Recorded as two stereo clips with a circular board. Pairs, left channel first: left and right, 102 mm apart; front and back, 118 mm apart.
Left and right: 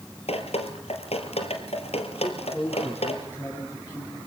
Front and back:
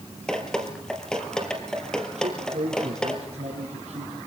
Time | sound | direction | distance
0.3 | dripping | 85° left | 3 m
2.2 | a man speaking | 160° left | 5.5 m